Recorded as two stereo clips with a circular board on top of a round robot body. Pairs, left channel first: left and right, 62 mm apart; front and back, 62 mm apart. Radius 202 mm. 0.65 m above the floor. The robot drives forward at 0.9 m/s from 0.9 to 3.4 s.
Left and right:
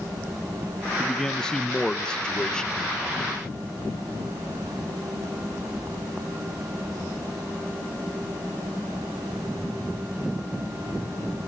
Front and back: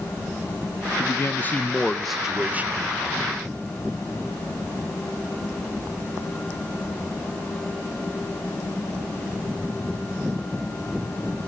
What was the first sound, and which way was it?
A man speaking, 10° left.